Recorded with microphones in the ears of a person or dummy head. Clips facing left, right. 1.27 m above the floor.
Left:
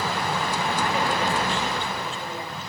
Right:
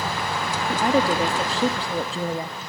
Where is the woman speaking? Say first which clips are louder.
Right 8 dB; 35° right (ahead or behind), 2 m; by 2.6 s 30° right (ahead or behind), 1.0 m.